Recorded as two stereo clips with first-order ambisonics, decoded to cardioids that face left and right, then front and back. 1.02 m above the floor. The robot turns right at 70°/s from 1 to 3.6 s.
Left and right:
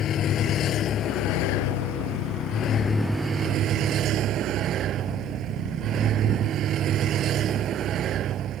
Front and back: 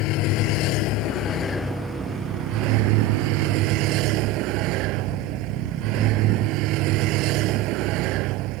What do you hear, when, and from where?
0.0 s a vehicle: 35° left; by 8.6 s 145° right